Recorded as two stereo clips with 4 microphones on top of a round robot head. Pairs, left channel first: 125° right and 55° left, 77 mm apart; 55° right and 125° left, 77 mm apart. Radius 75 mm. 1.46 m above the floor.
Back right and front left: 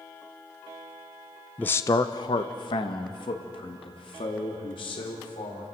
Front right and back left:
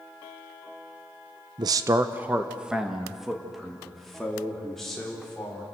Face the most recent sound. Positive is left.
turn(degrees=-140)